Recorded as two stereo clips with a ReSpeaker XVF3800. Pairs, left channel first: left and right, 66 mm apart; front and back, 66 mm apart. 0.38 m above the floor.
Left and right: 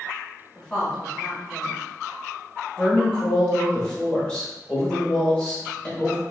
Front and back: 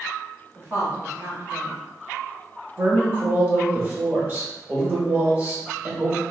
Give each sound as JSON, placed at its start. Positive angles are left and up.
{"t": 0.6, "sound": "a woman speaking", "azimuth_deg": 170, "distance_m": 1.6}
{"t": 2.8, "sound": "a woman speaking", "azimuth_deg": 150, "distance_m": 1.2}